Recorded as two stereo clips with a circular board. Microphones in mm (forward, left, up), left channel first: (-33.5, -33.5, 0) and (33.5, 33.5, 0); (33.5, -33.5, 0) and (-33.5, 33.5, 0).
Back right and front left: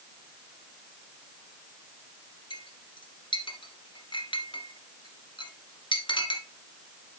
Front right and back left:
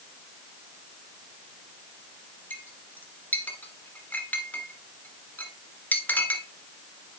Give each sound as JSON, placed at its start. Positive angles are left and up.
{"t": 2.5, "sound": "a clink", "azimuth_deg": -115, "distance_m": 1.4}